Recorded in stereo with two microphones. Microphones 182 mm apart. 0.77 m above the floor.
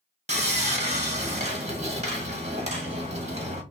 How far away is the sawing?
About 1.3 m.